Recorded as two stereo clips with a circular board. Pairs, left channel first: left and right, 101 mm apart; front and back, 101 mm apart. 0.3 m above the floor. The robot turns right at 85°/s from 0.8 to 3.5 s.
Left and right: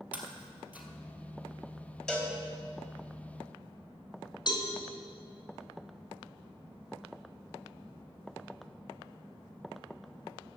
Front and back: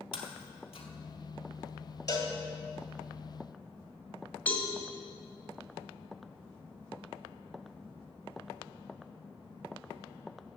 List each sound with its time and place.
0.1 s breaking glass: 15° right, 1.9 m; by 0.9 s 10° right, 1.9 m
2.1 s a cowbell: 10° left, 1.9 m; by 2.3 s 30° left, 1.9 m
4.5 s a cowbell: 70° left, 2.0 m